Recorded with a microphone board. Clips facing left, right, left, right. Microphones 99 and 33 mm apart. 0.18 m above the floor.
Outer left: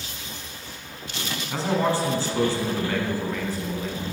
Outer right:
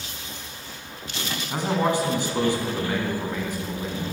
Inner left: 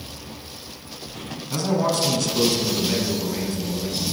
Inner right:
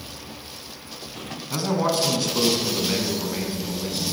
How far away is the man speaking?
About 1.7 m.